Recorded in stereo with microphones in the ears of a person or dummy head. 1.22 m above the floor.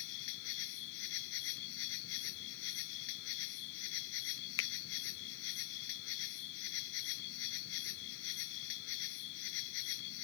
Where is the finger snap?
60° left (ahead or behind).